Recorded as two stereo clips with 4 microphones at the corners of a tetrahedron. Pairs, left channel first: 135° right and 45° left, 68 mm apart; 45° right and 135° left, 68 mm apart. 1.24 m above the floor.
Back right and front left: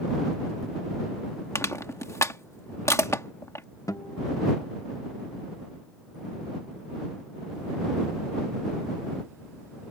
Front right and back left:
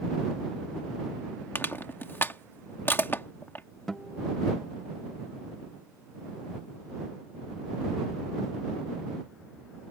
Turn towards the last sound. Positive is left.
turn(degrees=-125)